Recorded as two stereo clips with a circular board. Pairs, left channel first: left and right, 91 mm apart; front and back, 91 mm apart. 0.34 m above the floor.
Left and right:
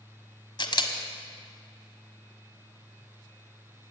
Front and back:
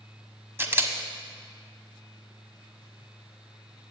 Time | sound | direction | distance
0.6 | a camera shutter | 120° left | 1.2 m